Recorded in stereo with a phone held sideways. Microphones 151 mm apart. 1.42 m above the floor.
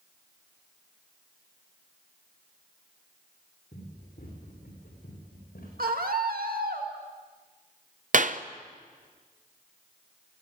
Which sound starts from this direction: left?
Running footsteps, at 3.7 s.